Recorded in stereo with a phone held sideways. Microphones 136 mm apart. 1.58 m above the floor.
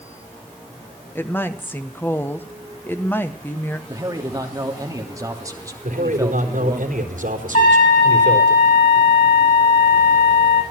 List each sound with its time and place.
1.1 s a woman speaking: 15° left (ahead or behind), 1.6 m
3.9 s a man speaking: 25° right (ahead or behind), 3.5 m
5.8 s a man speaking: 75° right (ahead or behind), 4 m
7.5 s a trumpet: 80° left, 6 m